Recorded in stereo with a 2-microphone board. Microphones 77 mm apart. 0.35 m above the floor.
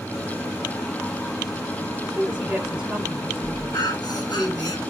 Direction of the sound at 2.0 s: 10° right (ahead or behind).